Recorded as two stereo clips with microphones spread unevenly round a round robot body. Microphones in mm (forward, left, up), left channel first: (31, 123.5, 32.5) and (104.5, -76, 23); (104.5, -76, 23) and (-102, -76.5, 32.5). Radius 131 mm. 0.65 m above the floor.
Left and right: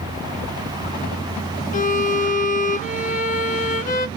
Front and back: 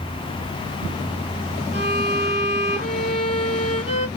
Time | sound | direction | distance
1.7 | a violin | 65° left | 0.7 m